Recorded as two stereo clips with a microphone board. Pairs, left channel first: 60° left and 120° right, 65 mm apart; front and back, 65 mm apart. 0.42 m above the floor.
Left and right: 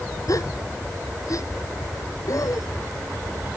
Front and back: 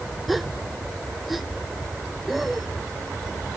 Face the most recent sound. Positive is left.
turn(degrees=90)